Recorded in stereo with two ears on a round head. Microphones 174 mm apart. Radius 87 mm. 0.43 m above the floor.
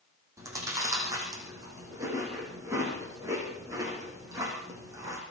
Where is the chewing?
15° right (ahead or behind), 9 m.